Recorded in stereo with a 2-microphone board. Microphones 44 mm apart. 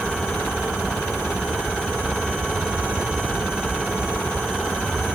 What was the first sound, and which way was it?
Only background noise.